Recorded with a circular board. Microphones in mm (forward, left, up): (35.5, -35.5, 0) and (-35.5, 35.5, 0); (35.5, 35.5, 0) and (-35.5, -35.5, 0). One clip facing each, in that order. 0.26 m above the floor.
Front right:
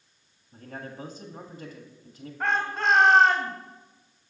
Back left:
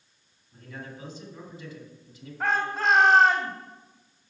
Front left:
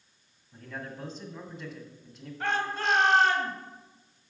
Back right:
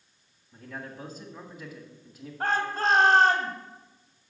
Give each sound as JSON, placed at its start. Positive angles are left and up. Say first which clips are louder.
{"t": 0.5, "sound": "a man speaking", "louder": "front right 2 dB, even", "azimuth_deg": -50, "distance_m": 1.7}
{"t": 2.4, "sound": "a shout", "louder": "even, back right 3 dB", "azimuth_deg": -135, "distance_m": 1.5}